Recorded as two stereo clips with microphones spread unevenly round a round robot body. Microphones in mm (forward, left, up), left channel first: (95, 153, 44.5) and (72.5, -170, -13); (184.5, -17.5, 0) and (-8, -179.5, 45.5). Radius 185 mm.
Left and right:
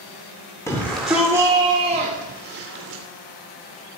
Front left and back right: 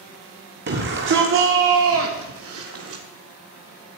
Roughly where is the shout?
Behind.